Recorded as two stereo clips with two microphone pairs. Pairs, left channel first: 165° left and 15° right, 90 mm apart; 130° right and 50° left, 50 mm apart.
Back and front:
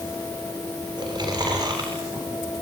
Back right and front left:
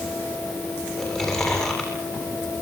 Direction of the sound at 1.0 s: 50° right.